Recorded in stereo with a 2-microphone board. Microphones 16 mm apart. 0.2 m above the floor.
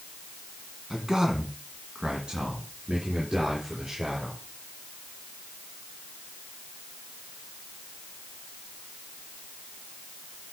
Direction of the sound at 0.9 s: 25° right (ahead or behind).